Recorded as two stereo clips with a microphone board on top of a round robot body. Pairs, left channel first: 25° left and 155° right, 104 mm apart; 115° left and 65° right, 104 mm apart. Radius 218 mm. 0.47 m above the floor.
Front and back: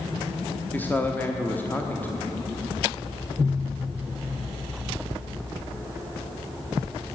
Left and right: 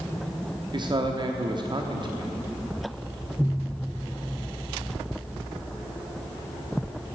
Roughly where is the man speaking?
Ahead right.